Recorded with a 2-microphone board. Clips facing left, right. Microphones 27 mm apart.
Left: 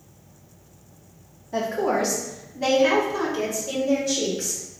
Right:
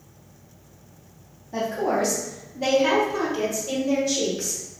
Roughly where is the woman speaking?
Left.